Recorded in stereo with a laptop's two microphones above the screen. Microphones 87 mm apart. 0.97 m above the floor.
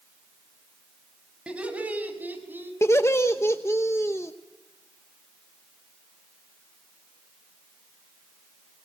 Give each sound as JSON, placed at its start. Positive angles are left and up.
{"t": 1.5, "sound": "laughter", "side_deg": -15, "distance_m": 5.5}
{"t": 2.8, "sound": "laughter", "side_deg": 35, "distance_m": 1.0}